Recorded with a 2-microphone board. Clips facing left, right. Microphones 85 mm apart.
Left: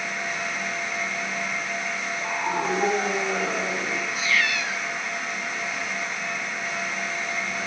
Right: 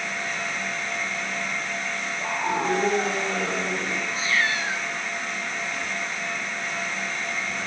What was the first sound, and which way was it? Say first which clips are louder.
A scream: right 1 dB; 10° right (ahead or behind).